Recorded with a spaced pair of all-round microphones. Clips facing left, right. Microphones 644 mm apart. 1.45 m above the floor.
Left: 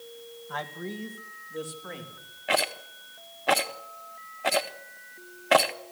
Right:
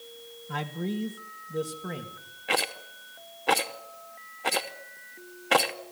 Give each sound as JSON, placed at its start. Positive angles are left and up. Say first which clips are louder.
{"t": 0.5, "sound": "a man speaking", "louder": "right 5 dB", "side_deg": -50, "distance_m": 1.8}
{"t": 2.5, "sound": "a rattle", "louder": "left 2 dB", "side_deg": 10, "distance_m": 0.7}